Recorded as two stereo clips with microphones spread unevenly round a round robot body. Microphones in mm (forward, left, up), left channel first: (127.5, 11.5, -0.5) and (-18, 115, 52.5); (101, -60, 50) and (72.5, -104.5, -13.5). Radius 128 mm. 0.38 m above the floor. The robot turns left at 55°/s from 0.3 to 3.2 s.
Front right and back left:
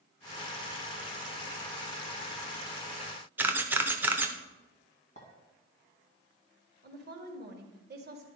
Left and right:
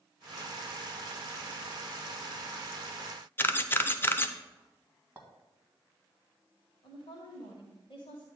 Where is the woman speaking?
120° left, 2 m.